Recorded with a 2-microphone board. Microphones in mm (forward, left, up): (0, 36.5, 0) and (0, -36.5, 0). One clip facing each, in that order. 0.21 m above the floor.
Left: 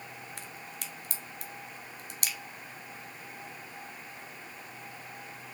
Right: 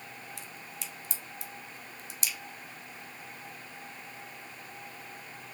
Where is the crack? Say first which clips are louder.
Left 1 dB; 60° left (ahead or behind), 0.8 m.